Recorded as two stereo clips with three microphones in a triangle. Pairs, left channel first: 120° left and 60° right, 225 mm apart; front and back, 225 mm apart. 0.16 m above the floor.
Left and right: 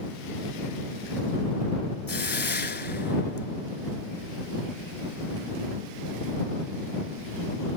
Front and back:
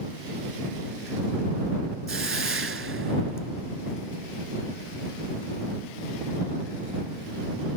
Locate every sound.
2.1 s a hiss: 160° left